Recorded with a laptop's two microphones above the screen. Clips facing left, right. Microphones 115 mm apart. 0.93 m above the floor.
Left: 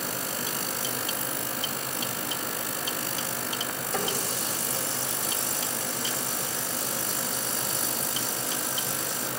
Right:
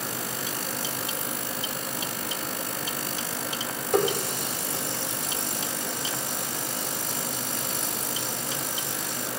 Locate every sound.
3.9 s a running tap: 60° right (ahead or behind), 1.6 m